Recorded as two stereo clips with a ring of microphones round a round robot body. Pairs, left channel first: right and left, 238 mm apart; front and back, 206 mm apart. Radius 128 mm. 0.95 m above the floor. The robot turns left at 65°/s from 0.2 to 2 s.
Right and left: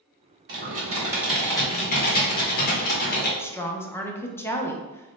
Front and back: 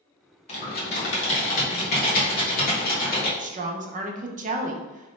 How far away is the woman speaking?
About 0.5 m.